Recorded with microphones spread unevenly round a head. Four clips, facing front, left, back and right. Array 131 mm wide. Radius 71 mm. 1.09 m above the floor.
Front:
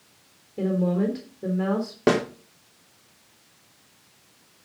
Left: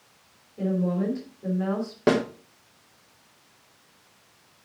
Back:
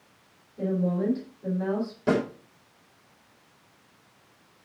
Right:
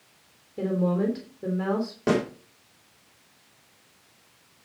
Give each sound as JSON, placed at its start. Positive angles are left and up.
{"t": 0.6, "sound": "a woman speaking", "azimuth_deg": -35, "distance_m": 3.5}
{"t": 2.1, "sound": "a snare drum", "azimuth_deg": 25, "distance_m": 3.5}